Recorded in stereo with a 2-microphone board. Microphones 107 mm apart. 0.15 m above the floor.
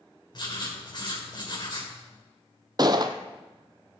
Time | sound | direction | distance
0.3 | writing | 45° left (ahead or behind) | 4.5 m
2.8 | a gunshot | 45° right (ahead or behind) | 0.7 m